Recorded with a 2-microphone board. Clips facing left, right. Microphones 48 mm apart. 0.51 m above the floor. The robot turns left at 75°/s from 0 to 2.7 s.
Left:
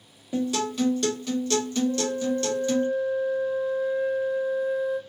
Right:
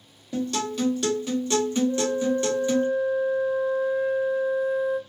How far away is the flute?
About 1.2 m.